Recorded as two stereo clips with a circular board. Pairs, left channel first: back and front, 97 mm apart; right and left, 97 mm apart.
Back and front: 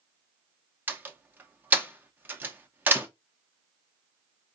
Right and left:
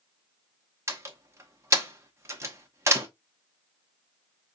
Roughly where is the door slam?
Ahead left.